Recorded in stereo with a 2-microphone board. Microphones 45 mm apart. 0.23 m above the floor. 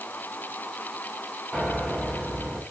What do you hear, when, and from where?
1.5 s a piano: 15° left (ahead or behind), 2.5 m